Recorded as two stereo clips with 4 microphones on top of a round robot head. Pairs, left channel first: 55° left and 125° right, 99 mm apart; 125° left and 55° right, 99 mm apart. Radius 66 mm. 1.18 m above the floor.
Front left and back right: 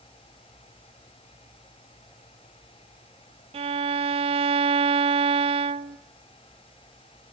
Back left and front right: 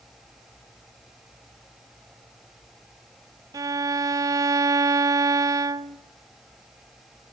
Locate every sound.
3.5 s a violin: 110° right, 0.7 m